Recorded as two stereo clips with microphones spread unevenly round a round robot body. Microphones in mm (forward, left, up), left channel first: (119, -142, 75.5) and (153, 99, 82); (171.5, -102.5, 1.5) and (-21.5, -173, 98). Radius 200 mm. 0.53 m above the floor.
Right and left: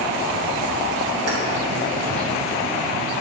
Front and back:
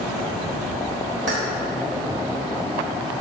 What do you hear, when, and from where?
1.3 s keys jangling: 135° left, 1.3 m